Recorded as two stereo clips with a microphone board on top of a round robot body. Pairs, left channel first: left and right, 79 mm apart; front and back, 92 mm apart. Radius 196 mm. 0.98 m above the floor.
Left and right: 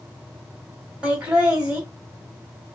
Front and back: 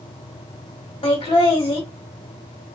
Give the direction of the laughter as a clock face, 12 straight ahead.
12 o'clock.